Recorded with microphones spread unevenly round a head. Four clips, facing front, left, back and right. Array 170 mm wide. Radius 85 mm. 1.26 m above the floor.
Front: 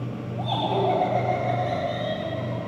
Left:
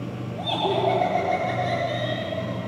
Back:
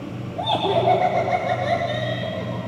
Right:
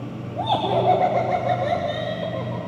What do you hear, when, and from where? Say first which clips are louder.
0.4 s laughter: right 3 dB, back 4 dB; 115° right, 2.5 m